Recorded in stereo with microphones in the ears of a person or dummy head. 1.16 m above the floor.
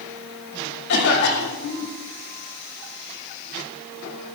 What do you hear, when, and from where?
0.9 s a cough: 65° left (ahead or behind), 7 m